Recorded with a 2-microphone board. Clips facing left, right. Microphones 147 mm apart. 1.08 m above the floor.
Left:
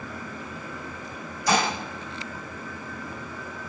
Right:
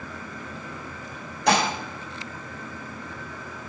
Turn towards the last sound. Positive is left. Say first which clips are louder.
# right 2 dB
turn(degrees=-75)  # may be behind; listen again after turning